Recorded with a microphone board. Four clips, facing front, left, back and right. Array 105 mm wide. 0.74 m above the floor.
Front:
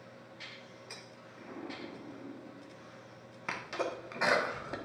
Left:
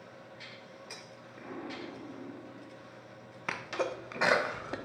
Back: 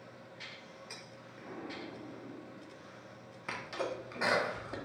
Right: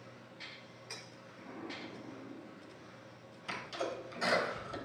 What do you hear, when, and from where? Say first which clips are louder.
1.4 s an explosion: left 4 dB, even; 100° left, 1.8 m
3.5 s a sneeze: left 5 dB, front 2 dB; 75° left, 1.6 m